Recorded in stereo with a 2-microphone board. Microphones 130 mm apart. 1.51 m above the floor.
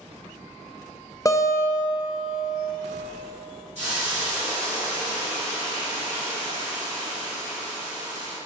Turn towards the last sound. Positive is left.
turn(degrees=-60)  # may be behind; listen again after turning